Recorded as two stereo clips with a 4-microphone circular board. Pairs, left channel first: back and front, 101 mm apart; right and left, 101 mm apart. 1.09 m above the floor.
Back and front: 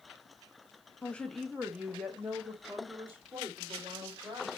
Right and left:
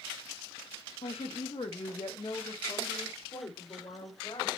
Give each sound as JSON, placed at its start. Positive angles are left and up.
{"t": 1.0, "sound": "a woman speaking", "azimuth_deg": -110, "distance_m": 0.9}